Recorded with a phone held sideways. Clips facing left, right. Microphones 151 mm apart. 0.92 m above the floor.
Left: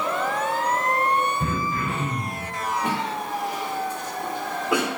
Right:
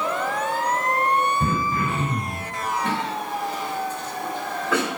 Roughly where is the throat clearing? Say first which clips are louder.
Right 2 dB; right.